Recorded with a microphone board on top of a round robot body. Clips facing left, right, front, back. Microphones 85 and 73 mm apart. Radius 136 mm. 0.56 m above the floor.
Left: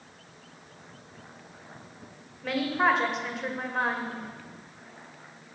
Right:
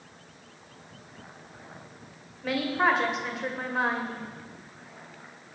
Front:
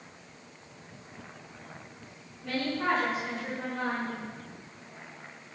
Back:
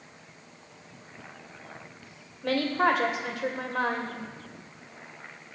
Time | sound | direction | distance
2.4 | a woman speaking | straight behind | 2.5 m